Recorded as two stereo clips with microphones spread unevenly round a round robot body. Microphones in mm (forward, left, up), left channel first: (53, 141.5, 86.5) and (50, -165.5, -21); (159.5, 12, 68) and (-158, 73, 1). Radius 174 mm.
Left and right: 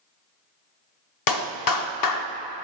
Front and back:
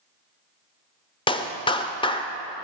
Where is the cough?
No cough in this recording.